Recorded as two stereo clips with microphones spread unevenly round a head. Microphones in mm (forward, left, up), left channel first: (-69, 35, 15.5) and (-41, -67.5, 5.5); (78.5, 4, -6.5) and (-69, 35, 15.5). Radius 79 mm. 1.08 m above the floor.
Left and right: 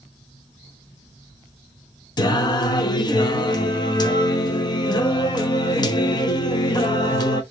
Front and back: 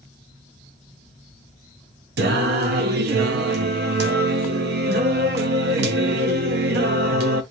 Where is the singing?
155° left, 0.8 m.